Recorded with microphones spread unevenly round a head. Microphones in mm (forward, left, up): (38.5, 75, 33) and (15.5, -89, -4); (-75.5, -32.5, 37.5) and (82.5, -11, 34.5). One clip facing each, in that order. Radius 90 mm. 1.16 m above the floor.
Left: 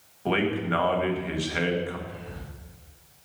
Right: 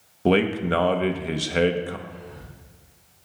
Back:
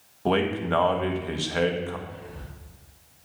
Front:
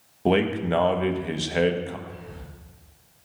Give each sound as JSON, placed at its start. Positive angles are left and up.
{"t": 0.2, "sound": "a man speaking", "azimuth_deg": -60, "distance_m": 1.4}
{"t": 2.1, "sound": "whispering", "azimuth_deg": 30, "distance_m": 4.5}